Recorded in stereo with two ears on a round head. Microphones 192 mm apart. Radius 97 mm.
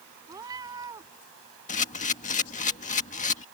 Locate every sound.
0.3 s a cat meowing: 15° right (ahead or behind)
1.7 s a camera shutter: 35° left (ahead or behind)